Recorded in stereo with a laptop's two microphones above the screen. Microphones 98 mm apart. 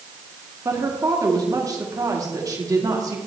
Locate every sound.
0.7 s a woman speaking: 35° right (ahead or behind), 1.8 m